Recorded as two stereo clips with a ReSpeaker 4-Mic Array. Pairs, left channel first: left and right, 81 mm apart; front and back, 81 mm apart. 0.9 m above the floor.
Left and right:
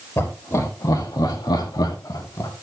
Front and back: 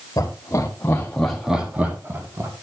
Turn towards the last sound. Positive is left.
turn(degrees=130)